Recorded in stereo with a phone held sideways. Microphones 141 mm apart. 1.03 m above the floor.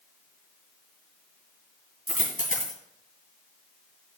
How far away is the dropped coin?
About 3 m.